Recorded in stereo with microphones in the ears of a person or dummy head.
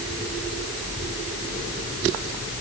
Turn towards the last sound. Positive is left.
No sound to turn to.